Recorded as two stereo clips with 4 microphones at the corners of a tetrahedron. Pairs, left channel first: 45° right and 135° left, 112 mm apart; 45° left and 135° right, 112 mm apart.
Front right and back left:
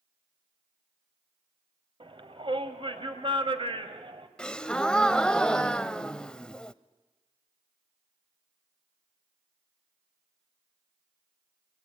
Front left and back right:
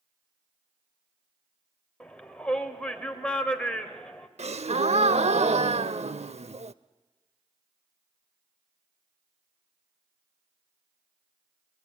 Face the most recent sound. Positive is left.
turn(degrees=-125)